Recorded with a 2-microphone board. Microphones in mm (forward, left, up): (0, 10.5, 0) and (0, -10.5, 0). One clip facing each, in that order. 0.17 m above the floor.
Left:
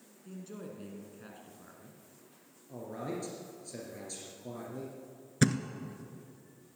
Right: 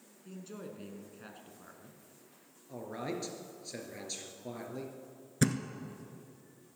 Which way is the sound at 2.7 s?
30° right (ahead or behind).